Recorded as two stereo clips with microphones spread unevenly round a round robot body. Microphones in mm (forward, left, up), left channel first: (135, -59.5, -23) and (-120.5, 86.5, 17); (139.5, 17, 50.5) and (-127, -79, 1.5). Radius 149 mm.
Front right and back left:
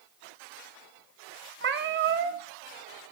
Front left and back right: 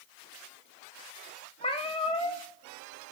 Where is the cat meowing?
95° left, 0.9 m.